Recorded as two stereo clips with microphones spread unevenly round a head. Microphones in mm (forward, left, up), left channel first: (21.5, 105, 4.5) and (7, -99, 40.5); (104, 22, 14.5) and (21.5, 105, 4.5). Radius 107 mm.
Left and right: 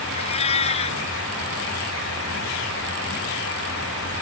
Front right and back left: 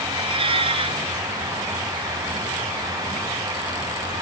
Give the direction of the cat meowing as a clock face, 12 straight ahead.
7 o'clock.